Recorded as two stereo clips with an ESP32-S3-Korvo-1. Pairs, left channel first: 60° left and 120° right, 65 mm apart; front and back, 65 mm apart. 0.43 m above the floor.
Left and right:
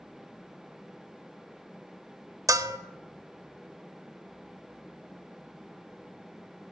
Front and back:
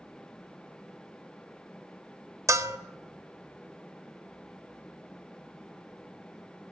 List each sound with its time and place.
2.5 s a bell: 145° right, 0.6 m